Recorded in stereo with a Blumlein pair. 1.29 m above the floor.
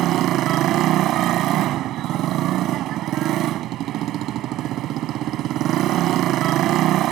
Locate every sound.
0.0 s a motorcycle: 35° right